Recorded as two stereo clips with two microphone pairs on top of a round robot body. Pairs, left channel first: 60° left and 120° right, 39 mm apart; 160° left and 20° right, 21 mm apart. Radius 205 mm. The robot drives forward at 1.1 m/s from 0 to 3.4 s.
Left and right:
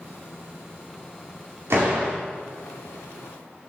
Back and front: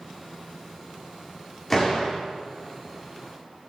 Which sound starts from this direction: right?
A door slam, at 1.7 s.